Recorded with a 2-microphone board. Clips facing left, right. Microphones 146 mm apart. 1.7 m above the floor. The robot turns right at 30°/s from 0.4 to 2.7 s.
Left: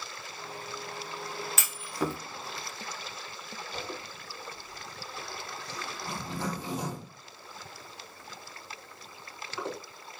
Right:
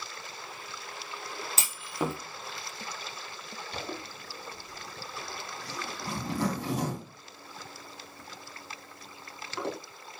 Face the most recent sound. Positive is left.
turn(degrees=-90)